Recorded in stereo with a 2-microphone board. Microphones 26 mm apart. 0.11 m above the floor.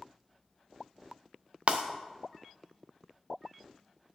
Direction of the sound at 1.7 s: 55° right (ahead or behind).